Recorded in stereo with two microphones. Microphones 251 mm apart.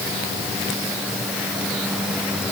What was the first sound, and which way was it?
Only background noise.